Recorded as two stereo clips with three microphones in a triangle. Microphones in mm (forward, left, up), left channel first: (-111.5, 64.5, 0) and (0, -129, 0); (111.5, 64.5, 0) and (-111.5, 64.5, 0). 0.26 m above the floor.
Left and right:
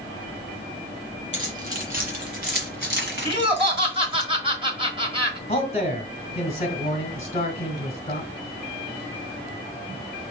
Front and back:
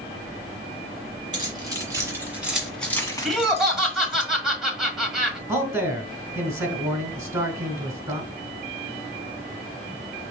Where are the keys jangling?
115° right, 3 m; by 4.2 s 25° right, 1.7 m.